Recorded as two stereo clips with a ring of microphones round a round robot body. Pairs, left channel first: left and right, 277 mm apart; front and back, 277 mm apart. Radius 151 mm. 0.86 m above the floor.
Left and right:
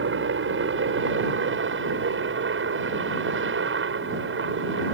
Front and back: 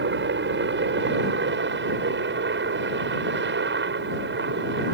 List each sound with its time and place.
0.0 s a helicopter: 135° right